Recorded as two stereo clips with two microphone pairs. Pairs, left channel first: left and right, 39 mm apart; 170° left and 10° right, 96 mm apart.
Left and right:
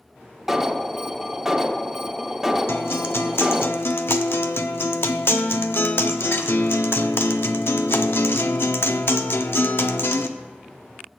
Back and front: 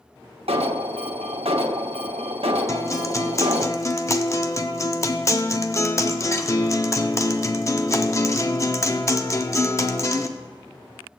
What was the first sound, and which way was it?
An alarm, 10° right.